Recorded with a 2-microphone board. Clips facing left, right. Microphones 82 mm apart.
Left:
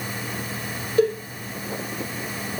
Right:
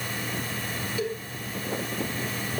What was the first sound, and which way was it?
A cowbell, 50° left (ahead or behind).